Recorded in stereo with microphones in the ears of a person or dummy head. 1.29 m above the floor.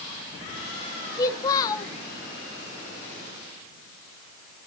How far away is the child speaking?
About 1.2 m.